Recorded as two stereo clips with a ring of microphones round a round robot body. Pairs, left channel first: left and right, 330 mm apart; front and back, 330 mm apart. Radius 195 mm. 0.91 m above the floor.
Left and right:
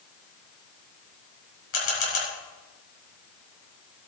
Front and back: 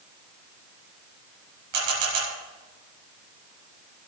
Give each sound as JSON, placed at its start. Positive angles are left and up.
{"t": 1.7, "sound": "a camera shutter", "azimuth_deg": 140, "distance_m": 5.0}